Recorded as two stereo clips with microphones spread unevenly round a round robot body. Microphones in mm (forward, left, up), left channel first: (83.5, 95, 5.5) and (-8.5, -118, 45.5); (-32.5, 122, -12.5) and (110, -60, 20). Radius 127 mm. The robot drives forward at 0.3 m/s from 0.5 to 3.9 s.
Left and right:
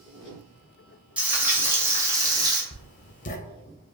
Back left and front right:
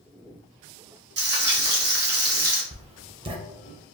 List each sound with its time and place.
1.2 s frying: 20° right, 1.3 m; by 2.6 s 40° right, 1.0 m
2.7 s writing: 15° left, 0.7 m; by 3.4 s 20° left, 0.6 m